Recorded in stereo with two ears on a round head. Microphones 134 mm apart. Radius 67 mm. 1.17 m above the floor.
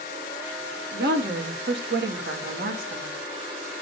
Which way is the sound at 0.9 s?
70° right (ahead or behind).